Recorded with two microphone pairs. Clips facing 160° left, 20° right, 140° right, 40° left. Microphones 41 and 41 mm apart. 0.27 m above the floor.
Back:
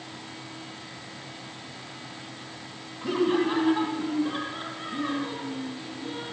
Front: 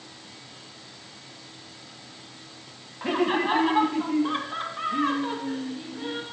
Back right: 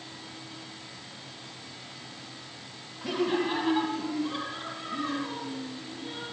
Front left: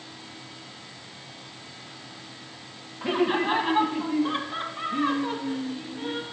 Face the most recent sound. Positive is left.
turn(degrees=0)